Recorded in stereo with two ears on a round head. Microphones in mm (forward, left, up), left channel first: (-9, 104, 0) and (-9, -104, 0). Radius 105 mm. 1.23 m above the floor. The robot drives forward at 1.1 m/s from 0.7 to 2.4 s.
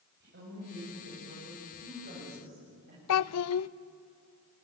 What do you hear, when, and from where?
0.2 s a woman speaking: 50° right (ahead or behind), 8 m; by 3.0 s 40° right (ahead or behind), 9 m
3.1 s a child speaking: 70° left (ahead or behind), 0.6 m